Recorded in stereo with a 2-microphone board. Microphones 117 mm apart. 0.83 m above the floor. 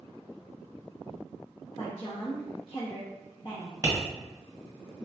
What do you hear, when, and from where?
1.8 s a woman speaking: 50° left (ahead or behind), 0.8 m
3.8 s tapping: 30° right (ahead or behind), 1.2 m